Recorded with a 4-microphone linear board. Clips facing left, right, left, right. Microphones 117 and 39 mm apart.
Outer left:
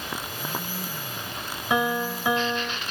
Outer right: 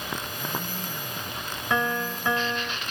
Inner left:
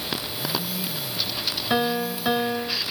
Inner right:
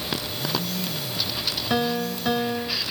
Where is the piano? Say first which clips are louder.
Outer left 2 dB, inner left 1 dB; 15° left (ahead or behind).